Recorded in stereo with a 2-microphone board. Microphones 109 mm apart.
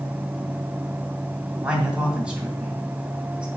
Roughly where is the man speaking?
Centre.